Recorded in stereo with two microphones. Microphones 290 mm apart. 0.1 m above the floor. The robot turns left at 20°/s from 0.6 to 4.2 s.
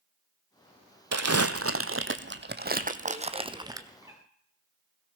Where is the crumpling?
65° right (ahead or behind), 0.9 m; by 3.9 s 10° right (ahead or behind), 0.9 m.